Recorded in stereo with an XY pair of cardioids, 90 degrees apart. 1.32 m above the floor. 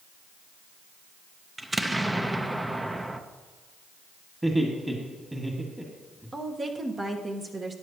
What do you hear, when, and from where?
1.6 s an explosion: 15° right, 0.8 m
4.4 s laughter: 15° right, 2 m
6.3 s a woman speaking: 35° right, 1.4 m